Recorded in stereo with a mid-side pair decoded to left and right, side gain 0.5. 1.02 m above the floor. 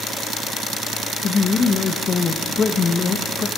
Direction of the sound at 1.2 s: 45° left.